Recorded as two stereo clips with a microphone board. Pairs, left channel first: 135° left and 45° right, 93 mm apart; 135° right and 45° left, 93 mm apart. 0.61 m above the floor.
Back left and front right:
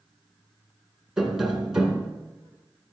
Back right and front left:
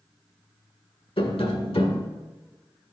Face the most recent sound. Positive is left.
turn(degrees=-130)